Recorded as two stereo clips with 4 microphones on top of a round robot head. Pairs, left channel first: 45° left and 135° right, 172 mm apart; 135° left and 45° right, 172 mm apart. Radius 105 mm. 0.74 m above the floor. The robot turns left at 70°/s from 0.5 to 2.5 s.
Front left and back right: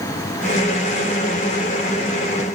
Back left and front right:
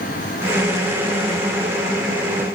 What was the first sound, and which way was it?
Only background noise.